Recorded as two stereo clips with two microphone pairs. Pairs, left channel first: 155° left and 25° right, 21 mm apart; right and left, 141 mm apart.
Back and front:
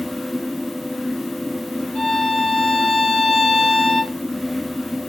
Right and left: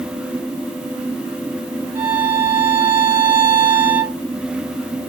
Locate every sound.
1.9 s a violin: 170° left, 2.5 m